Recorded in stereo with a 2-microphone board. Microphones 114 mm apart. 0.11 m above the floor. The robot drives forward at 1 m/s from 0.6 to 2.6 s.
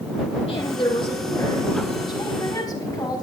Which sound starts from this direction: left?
A woman speaking, at 0.5 s.